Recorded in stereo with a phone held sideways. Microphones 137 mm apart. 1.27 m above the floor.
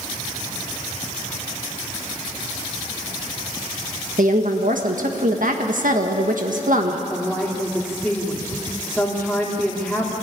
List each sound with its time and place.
4.2 s a woman speaking: 70° right (ahead or behind), 1.8 m
7.1 s a woman speaking: centre (ahead or behind), 3 m